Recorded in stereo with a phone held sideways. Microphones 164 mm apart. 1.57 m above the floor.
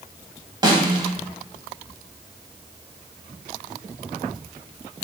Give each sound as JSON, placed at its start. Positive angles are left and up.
{"t": 0.6, "sound": "a snare drum", "side_deg": -25, "distance_m": 0.9}